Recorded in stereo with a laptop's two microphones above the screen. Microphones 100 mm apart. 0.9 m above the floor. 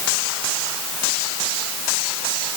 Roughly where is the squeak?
No squeak in this recording.